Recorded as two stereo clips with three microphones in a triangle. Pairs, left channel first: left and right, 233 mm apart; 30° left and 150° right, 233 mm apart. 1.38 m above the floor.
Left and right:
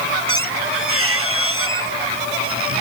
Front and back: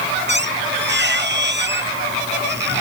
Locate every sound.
0.3 s a squeak: 110° right